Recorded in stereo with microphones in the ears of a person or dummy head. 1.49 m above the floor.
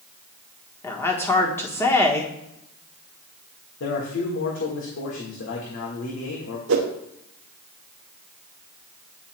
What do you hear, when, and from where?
0.8 s a woman speaking: 15° left (ahead or behind), 1.2 m
3.8 s a man speaking: 75° left (ahead or behind), 1.5 m
6.7 s a whoosh: 75° right (ahead or behind), 0.8 m